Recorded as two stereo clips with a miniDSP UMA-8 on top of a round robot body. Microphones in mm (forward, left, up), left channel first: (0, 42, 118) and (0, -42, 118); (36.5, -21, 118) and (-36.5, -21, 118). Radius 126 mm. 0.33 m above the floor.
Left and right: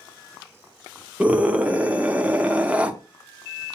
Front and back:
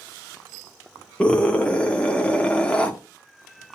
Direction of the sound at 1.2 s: 45° right.